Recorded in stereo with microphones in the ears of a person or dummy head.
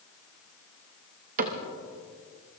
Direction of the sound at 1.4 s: 40° right (ahead or behind).